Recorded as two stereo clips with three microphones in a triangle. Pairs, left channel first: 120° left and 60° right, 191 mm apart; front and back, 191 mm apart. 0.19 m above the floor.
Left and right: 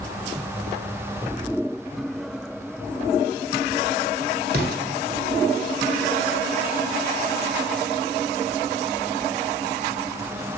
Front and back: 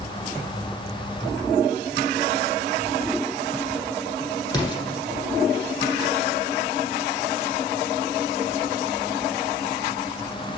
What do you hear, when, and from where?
4.5 s an explosion: 60° right, 0.9 m